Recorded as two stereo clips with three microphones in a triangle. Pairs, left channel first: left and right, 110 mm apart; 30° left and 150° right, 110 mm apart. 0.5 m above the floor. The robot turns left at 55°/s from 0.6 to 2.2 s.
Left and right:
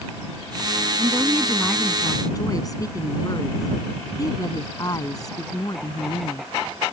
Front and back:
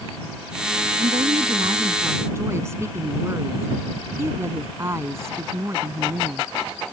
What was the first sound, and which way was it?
A woman speaking, 145° right.